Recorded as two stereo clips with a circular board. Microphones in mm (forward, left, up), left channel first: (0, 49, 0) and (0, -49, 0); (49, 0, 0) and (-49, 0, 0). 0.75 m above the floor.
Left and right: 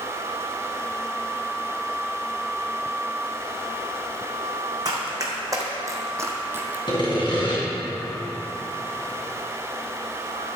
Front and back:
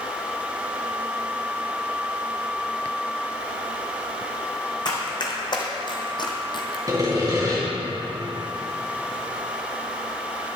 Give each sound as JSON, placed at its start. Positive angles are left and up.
{"t": 4.8, "sound": "running footsteps", "azimuth_deg": -40, "distance_m": 2.5}
{"t": 6.9, "sound": "sawing", "azimuth_deg": 125, "distance_m": 3.0}